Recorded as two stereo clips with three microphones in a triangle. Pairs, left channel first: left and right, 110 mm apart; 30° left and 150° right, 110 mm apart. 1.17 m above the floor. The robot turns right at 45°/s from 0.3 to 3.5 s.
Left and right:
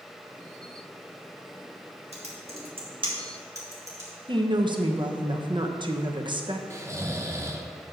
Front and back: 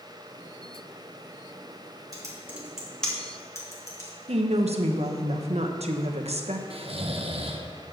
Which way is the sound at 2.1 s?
95° right.